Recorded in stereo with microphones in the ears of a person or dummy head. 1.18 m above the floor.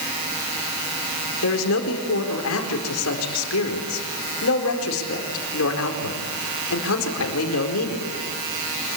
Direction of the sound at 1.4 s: 70° left (ahead or behind).